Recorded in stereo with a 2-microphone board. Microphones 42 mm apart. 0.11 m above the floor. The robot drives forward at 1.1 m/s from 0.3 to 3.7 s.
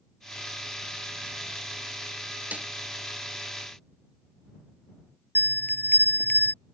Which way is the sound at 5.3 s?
50° left (ahead or behind).